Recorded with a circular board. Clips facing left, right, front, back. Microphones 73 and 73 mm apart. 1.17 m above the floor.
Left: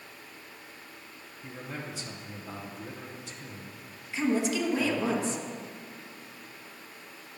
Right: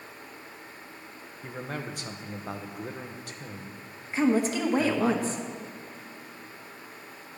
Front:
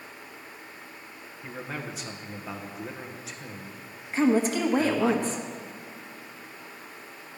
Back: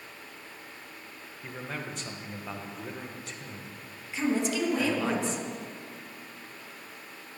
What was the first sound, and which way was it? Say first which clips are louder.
A man speaking: right 4 dB, front 1 dB; 85° right.